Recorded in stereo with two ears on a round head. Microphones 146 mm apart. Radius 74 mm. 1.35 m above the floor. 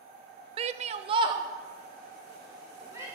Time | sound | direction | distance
0.6 | a shout | 35° right (ahead or behind) | 0.6 m